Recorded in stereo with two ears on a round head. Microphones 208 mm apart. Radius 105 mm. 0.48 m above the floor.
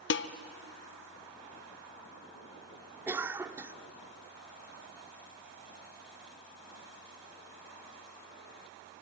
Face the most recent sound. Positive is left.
turn(degrees=-10)  # may be behind; listen again after turning